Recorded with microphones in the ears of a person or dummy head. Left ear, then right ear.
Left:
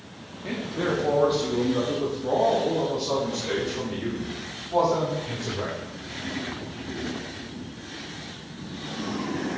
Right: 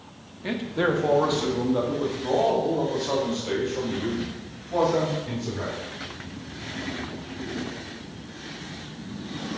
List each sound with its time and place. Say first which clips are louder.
0.4 s a man speaking: right 3 dB; 45° right (ahead or behind), 1.0 m; by 5.7 s 5° right (ahead or behind), 3.5 m